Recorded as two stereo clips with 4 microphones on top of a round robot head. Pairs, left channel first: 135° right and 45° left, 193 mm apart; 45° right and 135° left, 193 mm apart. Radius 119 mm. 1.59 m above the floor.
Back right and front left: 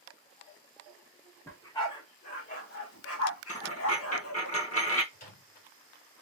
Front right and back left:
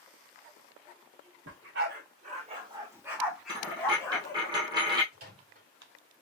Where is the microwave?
Straight behind, 3 m.